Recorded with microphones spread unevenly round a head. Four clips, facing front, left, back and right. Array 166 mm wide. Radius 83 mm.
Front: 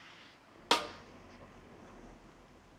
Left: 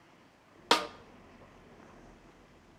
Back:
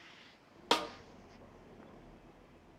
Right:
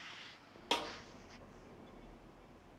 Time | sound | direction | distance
0.7 | a snare drum | 95° left | 0.6 m